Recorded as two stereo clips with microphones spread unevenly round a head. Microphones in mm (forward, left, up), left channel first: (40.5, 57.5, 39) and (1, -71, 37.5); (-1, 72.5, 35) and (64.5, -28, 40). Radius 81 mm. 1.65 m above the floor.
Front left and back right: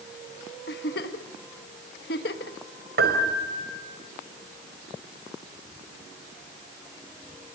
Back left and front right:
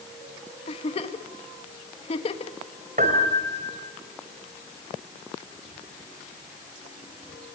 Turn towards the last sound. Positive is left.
turn(degrees=-100)